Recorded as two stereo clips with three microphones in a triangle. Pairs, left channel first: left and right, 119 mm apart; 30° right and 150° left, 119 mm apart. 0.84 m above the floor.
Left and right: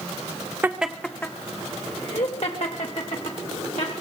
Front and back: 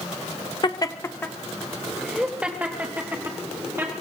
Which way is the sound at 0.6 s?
25° right.